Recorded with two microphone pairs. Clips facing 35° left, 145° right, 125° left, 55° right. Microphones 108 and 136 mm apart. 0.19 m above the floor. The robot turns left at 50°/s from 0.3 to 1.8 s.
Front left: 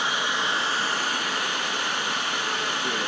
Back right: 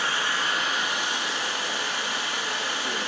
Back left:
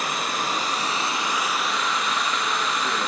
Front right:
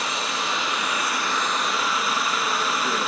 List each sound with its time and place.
0.0 s running water: 105° left, 1.3 m; by 3.1 s 30° left, 1.3 m